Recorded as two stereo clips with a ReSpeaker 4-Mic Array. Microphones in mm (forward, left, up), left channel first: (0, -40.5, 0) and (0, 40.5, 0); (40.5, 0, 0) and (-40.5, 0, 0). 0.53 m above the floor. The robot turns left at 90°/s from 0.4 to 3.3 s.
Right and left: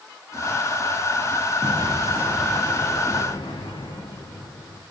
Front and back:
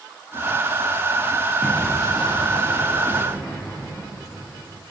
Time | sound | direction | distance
1.6 | an explosion | 80° left | 9 m